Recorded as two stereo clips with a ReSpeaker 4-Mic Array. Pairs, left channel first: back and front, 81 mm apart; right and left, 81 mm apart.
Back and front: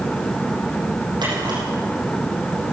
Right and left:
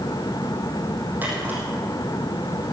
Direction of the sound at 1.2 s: 25° left.